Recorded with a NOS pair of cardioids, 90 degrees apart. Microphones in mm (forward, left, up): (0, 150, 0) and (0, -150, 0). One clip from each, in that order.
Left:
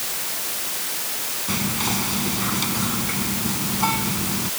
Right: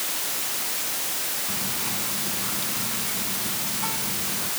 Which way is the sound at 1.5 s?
65° left.